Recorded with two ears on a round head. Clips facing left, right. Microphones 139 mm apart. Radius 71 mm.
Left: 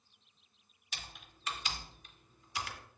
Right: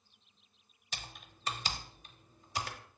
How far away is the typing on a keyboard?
About 0.7 m.